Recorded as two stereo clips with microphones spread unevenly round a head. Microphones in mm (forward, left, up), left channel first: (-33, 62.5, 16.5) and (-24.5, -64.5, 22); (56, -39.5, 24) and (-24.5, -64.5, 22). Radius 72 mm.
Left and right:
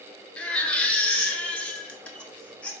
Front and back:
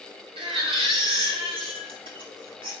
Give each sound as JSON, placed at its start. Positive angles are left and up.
{"t": 0.4, "sound": "a baby crying", "azimuth_deg": 175, "distance_m": 0.7}